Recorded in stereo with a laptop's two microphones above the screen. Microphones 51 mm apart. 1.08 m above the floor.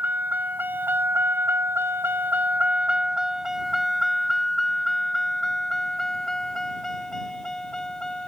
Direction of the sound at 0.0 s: 40° right (ahead or behind).